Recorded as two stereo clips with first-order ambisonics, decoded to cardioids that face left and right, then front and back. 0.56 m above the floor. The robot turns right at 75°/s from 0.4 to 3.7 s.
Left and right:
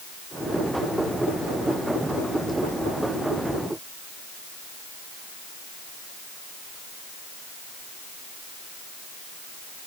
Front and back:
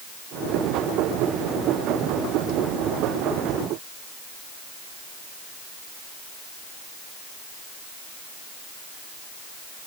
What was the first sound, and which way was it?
Only background noise.